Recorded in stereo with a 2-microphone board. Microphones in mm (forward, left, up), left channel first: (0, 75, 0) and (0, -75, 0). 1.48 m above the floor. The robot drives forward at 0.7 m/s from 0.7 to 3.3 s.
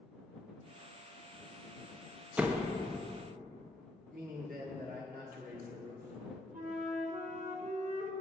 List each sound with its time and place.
2.4 s a door slam: 10° right (ahead or behind), 0.6 m; by 2.8 s 5° right (ahead or behind), 0.8 m
4.1 s a man speaking: 75° right (ahead or behind), 1.4 m
6.5 s a flute: 65° right (ahead or behind), 0.9 m